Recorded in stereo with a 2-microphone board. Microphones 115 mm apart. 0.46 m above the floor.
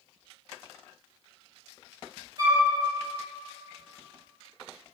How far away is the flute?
About 1.5 m.